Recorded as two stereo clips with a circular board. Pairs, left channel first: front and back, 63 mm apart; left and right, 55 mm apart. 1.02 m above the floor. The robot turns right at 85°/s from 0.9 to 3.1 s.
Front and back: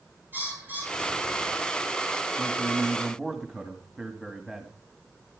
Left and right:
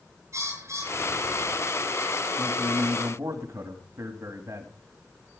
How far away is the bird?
About 8 m.